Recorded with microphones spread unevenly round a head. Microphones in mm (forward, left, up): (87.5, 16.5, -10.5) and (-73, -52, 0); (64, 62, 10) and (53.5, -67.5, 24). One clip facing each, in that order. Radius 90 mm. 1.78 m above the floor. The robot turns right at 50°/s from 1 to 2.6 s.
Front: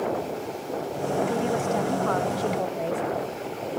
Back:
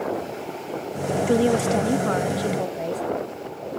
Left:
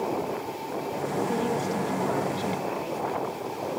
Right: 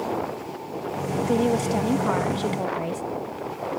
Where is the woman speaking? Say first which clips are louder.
Back 6 dB, right 5 dB; 145° right, 0.7 m; by 3.0 s 75° right, 0.7 m.